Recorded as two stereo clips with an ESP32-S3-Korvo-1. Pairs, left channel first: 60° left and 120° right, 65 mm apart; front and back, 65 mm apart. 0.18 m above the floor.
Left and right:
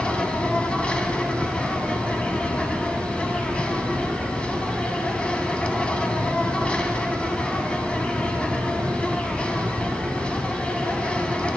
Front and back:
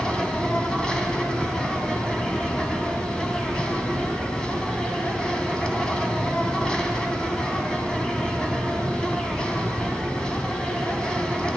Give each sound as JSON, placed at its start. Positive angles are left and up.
{"t": 0.0, "sound": "an insect", "azimuth_deg": 45, "distance_m": 1.0}